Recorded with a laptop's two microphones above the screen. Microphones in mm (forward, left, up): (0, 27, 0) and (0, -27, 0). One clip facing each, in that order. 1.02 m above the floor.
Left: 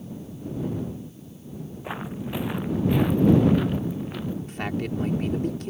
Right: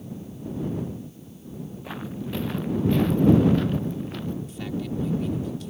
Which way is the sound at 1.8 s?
20° left (ahead or behind).